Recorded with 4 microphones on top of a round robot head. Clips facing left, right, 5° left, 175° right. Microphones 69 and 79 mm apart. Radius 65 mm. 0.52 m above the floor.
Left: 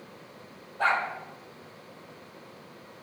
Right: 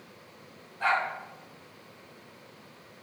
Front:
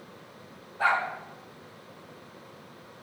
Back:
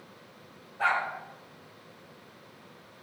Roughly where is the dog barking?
Left.